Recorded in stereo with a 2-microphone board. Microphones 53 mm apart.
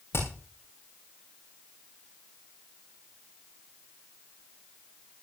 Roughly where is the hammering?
Left.